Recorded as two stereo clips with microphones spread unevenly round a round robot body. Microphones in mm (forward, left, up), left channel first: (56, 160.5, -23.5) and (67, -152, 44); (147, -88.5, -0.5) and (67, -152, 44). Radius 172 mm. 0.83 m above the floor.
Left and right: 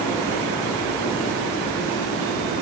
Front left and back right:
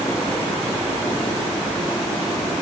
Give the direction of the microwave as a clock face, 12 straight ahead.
I don't hear a microwave.